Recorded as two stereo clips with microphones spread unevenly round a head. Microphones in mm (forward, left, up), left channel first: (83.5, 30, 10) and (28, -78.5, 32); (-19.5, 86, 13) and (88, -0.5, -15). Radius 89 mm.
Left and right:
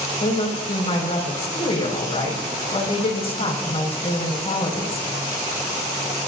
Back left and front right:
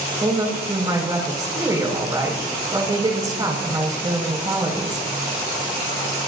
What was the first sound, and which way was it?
A woman speaking, 25° left.